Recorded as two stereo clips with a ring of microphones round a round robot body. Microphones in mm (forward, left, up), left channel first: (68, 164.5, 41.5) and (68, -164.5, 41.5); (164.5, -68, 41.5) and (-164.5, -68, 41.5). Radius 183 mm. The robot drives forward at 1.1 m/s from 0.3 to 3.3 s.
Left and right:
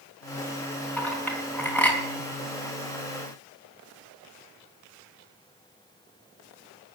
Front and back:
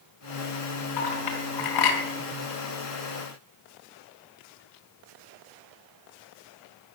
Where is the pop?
No pop in this recording.